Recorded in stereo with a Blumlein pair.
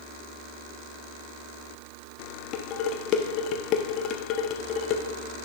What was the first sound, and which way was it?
Dishes clattering, 35° left.